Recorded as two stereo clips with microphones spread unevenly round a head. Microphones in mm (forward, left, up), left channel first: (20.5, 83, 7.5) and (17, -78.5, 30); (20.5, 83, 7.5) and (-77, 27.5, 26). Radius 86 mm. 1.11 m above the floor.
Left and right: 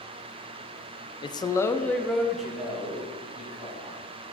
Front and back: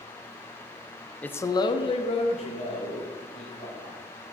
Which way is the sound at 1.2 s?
85° left.